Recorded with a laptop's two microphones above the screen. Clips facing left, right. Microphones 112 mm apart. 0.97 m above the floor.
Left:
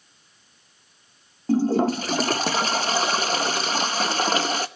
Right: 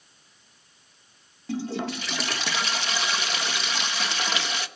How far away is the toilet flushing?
About 0.8 m.